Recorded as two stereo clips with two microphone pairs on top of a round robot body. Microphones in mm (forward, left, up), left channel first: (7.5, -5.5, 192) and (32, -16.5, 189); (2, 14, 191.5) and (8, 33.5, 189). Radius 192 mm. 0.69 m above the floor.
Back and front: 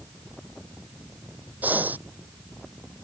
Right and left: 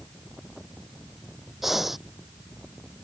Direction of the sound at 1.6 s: 10° right.